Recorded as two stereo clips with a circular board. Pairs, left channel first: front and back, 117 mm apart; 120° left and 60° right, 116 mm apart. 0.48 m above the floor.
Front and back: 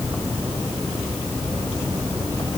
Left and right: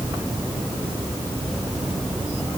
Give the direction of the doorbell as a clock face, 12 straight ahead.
I don't hear a doorbell.